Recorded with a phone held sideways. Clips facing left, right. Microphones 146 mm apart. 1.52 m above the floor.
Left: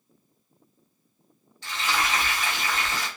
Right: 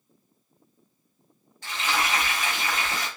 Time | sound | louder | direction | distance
1.6 | frying | even | 50° right (ahead or behind) | 1.7 m